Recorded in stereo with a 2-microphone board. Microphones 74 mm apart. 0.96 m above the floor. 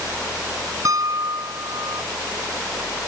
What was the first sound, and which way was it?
A piano, 50° right (ahead or behind).